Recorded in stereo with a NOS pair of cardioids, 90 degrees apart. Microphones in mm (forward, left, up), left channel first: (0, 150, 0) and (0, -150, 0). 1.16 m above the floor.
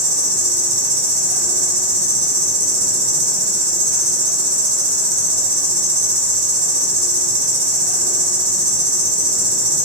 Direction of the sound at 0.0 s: 30° right.